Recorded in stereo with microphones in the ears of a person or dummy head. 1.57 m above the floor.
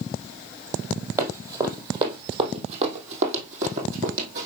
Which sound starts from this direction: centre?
Running footsteps, at 1.2 s.